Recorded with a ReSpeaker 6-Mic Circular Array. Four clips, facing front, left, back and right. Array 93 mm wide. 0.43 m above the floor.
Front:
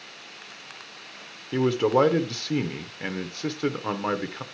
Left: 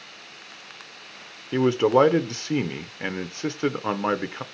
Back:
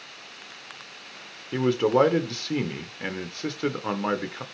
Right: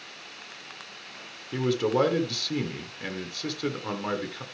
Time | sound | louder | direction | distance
1.5 | a man speaking | left 6 dB, even | 90° left | 1.0 m